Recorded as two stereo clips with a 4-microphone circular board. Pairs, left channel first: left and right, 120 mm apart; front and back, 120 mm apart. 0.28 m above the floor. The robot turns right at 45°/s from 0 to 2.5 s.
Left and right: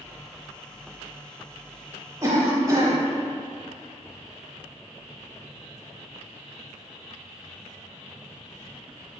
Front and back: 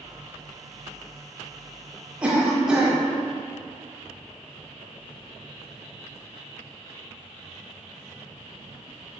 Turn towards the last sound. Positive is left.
turn(degrees=-100)